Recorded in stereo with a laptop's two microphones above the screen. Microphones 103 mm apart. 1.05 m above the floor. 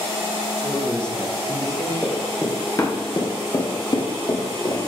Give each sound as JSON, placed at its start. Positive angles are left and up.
{"t": 0.6, "sound": "a man speaking", "side_deg": 25, "distance_m": 1.3}
{"t": 2.0, "sound": "running footsteps", "side_deg": 10, "distance_m": 1.3}